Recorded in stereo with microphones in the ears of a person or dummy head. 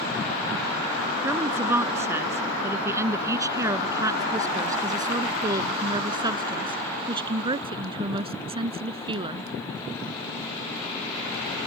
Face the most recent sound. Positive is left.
turn(degrees=-25)  # may be behind; listen again after turning